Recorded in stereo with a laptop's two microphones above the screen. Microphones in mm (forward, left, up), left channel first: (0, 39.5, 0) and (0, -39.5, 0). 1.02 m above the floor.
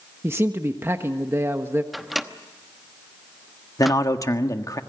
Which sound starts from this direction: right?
A man speaking, at 0.2 s.